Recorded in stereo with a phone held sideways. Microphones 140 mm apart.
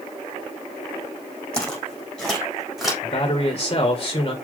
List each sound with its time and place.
1.5 s footsteps: 5° left (ahead or behind), 3.5 m; by 2.9 s centre (ahead or behind), 4 m
3.0 s a man speaking: 40° left (ahead or behind), 1.6 m